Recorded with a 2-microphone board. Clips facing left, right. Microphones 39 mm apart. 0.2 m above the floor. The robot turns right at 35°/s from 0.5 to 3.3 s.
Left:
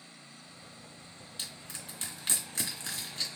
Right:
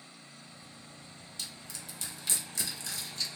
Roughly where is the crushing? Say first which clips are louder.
Left 1 dB; left.